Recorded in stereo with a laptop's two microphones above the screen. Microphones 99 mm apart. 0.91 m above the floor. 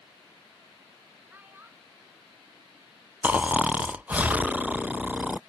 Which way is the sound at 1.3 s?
20° right (ahead or behind).